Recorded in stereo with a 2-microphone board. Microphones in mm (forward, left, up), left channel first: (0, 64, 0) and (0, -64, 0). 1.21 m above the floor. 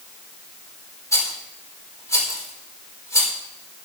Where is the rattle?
25° left (ahead or behind), 4.5 m.